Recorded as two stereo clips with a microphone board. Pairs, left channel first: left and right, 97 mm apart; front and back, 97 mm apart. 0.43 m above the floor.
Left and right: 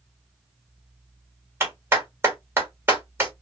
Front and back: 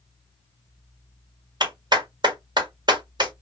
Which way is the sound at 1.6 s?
155° right.